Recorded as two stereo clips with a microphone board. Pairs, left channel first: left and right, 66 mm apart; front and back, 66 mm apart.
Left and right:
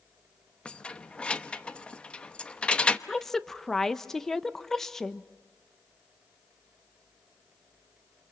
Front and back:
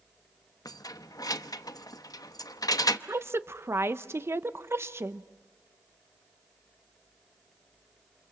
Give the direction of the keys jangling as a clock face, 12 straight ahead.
12 o'clock.